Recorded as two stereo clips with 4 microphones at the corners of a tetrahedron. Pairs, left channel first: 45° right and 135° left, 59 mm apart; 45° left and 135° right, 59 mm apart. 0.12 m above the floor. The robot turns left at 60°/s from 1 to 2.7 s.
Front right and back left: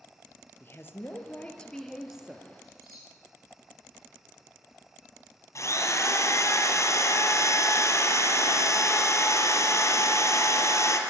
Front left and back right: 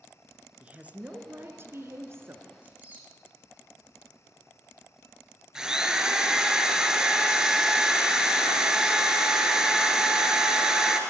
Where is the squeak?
165° left, 3.5 m; by 3.1 s 160° left, 3.5 m.